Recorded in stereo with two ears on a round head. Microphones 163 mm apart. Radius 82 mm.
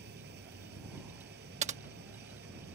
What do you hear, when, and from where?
0.0 s an engine running: 65° right (ahead or behind)
1.6 s typing on a keyboard: 40° right (ahead or behind)